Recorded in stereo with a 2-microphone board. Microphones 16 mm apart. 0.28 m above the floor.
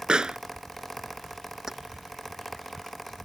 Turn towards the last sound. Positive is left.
turn(degrees=-40)  # may be behind; listen again after turning